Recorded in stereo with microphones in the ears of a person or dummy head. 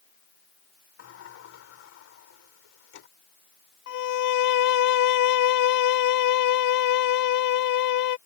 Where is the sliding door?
75° left (ahead or behind).